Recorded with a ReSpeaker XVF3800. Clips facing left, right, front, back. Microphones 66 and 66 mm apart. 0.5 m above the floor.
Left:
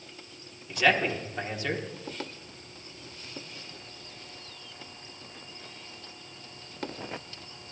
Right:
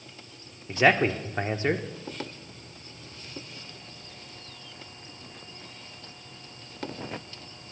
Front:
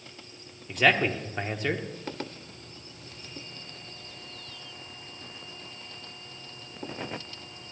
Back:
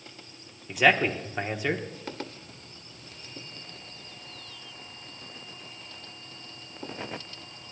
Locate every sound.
0.7 s a man speaking: 100° right, 0.9 m